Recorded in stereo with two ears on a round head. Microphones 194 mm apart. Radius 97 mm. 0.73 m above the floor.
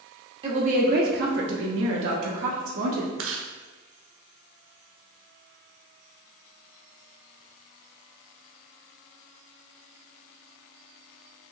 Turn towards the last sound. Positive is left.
turn(degrees=-60)  # may be behind; listen again after turning